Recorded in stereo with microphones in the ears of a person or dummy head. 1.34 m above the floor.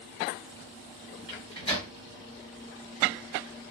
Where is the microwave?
25° left (ahead or behind), 1.2 m.